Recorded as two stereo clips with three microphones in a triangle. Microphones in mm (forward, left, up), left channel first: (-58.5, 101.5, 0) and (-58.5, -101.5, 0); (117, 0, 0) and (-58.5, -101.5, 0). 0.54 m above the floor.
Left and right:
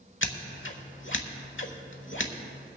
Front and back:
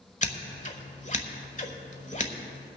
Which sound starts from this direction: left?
Scissors, at 0.2 s.